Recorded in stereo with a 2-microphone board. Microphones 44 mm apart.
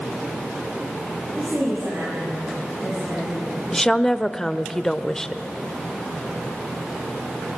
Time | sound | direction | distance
1.4 | a woman speaking | 65° right (ahead or behind) | 9 m
3.7 | a woman speaking | 10° left (ahead or behind) | 0.9 m